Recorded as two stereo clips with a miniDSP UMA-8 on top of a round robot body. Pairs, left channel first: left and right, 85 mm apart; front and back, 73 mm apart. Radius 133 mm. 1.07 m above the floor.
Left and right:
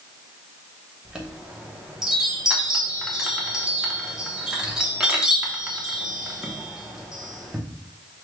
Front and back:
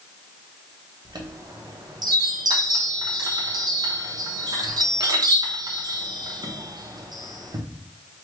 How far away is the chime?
About 0.8 m.